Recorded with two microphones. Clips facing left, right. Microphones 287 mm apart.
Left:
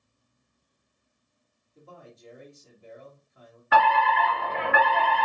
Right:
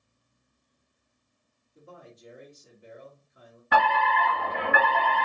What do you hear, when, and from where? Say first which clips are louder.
1.8 s a man speaking: even; 15° right (ahead or behind), 1.5 m
3.7 s a fire alarm: left 2 dB; 45° right (ahead or behind), 2.5 m